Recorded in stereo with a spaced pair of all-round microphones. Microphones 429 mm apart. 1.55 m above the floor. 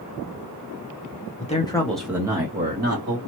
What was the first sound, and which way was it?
A man speaking, 20° left (ahead or behind).